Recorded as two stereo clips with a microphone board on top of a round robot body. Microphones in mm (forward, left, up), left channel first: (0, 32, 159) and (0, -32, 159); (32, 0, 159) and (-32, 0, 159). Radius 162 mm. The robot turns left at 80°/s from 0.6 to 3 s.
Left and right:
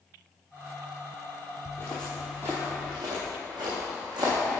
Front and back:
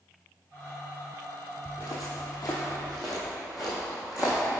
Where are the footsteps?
45° left, 1.2 m; by 4.6 s 100° right, 2.5 m.